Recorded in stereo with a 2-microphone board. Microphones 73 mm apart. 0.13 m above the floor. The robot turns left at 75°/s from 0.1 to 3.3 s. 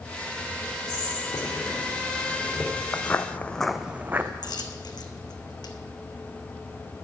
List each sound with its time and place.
0.9 s whispering: 45° left (ahead or behind), 3.5 m; by 2.7 s 5° right (ahead or behind), 3.5 m
2.9 s footsteps: 20° left (ahead or behind), 0.6 m; by 4.3 s 30° right (ahead or behind), 0.7 m
4.4 s a dropped coin: 75° left (ahead or behind), 0.8 m